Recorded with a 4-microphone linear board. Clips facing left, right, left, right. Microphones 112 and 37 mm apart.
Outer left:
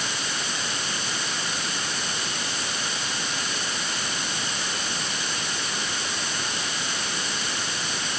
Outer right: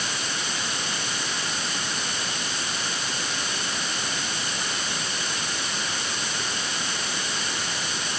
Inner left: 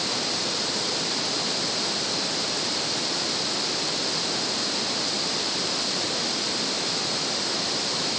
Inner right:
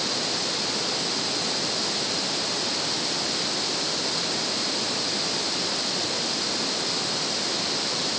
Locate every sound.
Only background noise.